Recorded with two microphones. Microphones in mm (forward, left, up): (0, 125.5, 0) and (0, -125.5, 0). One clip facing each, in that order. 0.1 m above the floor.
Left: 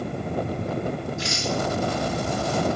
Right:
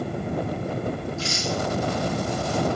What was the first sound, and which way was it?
A rattle, 15° left (ahead or behind).